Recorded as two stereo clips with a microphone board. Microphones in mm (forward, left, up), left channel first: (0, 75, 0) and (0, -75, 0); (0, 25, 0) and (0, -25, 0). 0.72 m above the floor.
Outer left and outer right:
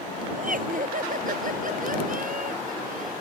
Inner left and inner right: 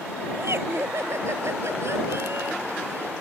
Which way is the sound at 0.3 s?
65° right (ahead or behind).